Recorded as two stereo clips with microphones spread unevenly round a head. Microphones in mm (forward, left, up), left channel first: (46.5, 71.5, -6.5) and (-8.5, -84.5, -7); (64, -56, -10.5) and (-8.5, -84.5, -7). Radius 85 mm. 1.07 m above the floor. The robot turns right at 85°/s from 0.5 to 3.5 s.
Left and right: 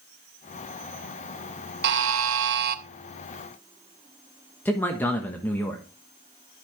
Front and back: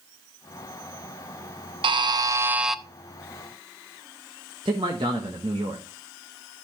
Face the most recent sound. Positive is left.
turn(degrees=150)